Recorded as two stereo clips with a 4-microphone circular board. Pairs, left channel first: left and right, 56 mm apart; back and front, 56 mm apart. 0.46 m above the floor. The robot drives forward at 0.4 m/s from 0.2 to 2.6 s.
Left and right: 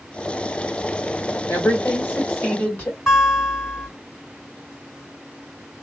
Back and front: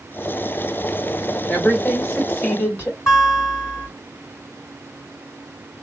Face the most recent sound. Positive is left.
turn(degrees=170)